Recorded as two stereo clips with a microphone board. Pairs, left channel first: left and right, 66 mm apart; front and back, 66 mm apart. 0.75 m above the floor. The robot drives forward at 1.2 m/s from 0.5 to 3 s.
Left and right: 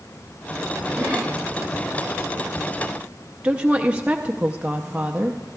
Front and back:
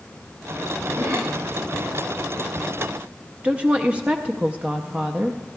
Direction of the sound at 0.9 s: 170° right.